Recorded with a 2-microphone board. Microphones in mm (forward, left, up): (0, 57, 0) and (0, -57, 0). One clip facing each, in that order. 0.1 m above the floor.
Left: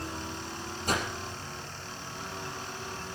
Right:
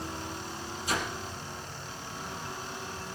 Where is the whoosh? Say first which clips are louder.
Left 2 dB; 50° left (ahead or behind), 4 m.